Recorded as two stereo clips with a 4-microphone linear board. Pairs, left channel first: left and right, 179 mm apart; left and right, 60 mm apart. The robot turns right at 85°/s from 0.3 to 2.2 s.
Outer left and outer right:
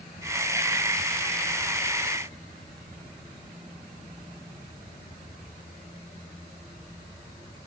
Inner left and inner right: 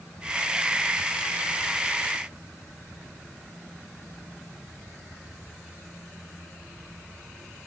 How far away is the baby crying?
I don't hear a baby crying.